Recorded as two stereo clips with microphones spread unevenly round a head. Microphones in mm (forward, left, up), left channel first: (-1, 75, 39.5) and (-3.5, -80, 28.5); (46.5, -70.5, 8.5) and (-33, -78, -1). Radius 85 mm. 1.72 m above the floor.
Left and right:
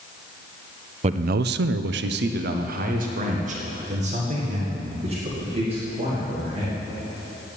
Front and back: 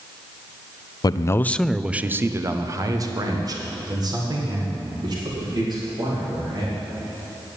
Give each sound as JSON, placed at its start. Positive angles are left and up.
{"t": 1.0, "sound": "a man speaking", "azimuth_deg": -40, "distance_m": 0.5}